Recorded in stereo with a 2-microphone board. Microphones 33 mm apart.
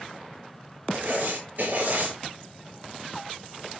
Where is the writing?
55° right (ahead or behind), 5.5 m.